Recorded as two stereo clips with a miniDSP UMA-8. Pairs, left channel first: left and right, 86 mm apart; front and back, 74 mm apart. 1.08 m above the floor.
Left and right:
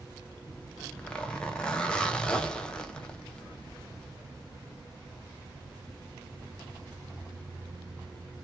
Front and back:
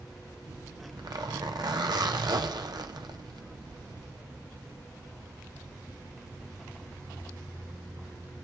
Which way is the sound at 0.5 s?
170° left.